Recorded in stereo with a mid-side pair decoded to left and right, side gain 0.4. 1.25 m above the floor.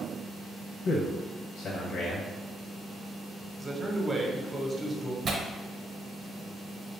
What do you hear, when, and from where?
0.8 s a man speaking: 70° left, 0.7 m
3.6 s a man speaking: 30° right, 0.9 m
5.2 s tearing paper: 60° right, 0.8 m